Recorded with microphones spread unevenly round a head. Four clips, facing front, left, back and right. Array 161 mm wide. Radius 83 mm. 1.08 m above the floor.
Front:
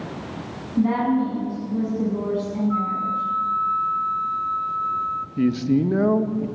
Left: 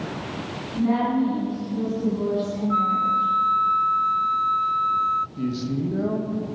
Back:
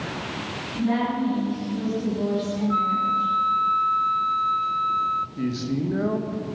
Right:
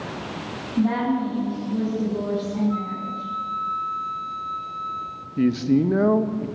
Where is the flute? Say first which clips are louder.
Left 7 dB, back 1 dB; 145° left, 0.6 m.